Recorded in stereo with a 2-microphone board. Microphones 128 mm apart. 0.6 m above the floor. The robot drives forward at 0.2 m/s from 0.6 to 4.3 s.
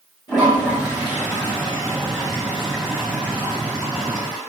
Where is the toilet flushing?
35° left (ahead or behind), 5 m; by 4.4 s 40° left (ahead or behind), 4.5 m.